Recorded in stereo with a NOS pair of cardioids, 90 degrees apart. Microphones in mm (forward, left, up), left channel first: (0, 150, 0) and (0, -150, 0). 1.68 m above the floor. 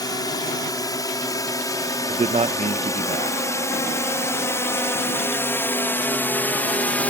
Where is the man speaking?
20° right.